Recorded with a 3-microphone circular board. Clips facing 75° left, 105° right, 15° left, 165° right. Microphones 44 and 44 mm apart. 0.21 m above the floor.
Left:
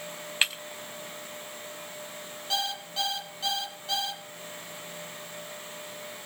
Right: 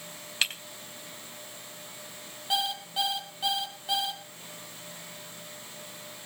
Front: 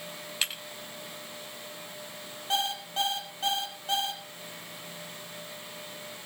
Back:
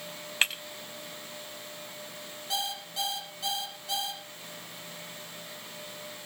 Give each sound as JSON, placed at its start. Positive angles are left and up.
{"t": 0.4, "sound": "breaking glass", "azimuth_deg": 145, "distance_m": 4.5}
{"t": 2.5, "sound": "an alarm clock", "azimuth_deg": -30, "distance_m": 3.5}